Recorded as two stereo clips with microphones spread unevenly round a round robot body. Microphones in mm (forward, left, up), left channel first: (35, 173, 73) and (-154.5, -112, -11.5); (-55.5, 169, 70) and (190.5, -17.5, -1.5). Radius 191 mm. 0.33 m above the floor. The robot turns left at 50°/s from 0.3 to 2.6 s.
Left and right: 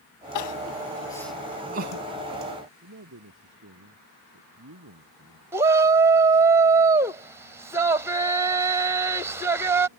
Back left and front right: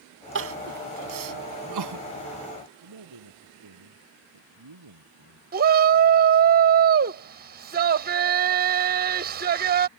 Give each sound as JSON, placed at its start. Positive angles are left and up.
{"t": 0.3, "sound": "crying", "azimuth_deg": 10}
{"t": 2.8, "sound": "a man speaking", "azimuth_deg": -65}
{"t": 5.5, "sound": "a shout", "azimuth_deg": -60}